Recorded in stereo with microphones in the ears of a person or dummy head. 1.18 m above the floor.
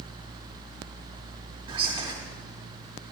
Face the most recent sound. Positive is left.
turn(degrees=-15)  # may be behind; listen again after turning